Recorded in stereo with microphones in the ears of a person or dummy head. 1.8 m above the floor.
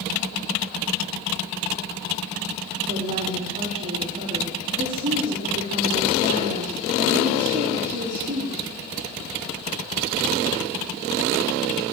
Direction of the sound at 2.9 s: 35° right (ahead or behind).